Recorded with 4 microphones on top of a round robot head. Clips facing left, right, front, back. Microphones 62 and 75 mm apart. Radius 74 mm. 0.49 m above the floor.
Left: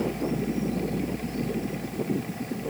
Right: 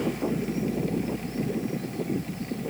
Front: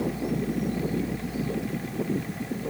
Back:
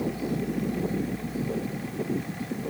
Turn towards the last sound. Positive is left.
No sound to turn to.